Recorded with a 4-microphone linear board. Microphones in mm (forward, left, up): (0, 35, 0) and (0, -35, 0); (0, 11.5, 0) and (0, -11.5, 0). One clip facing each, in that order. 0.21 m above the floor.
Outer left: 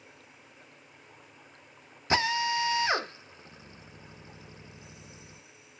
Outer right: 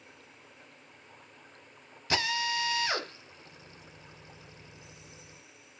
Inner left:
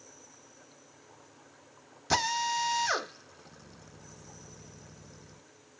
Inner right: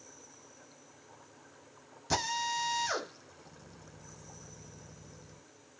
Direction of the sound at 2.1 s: 25° left (ahead or behind).